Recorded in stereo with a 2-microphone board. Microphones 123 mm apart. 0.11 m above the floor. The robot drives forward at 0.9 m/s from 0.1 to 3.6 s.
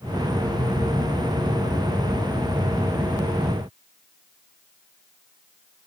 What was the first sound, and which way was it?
Only background noise.